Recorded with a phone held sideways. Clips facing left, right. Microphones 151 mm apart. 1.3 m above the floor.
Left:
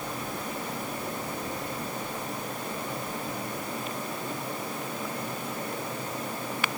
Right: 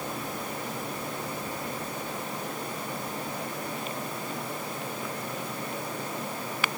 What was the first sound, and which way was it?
Only background noise.